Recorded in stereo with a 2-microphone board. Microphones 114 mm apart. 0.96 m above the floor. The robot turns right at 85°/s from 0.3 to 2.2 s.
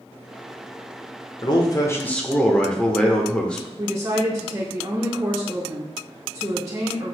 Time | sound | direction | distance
1.4 | a man speaking | 100° left | 0.7 m
3.8 | a woman speaking | 30° right (ahead or behind) | 0.7 m